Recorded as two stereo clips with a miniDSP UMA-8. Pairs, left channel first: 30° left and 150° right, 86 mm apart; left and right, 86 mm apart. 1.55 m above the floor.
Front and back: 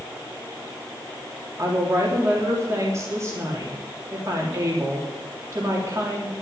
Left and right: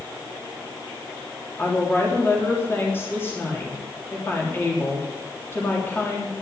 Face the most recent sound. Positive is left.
turn(degrees=155)